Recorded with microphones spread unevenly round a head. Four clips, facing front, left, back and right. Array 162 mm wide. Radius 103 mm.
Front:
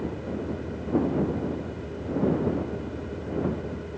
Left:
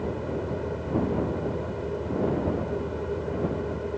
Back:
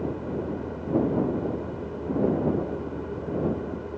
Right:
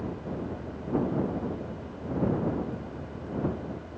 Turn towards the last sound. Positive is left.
turn(degrees=105)